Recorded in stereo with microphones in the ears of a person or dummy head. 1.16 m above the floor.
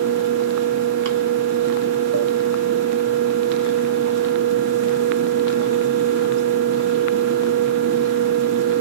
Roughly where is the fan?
Right.